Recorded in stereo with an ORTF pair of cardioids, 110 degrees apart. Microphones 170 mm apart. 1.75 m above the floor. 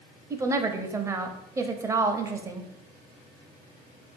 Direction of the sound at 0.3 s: 15° right.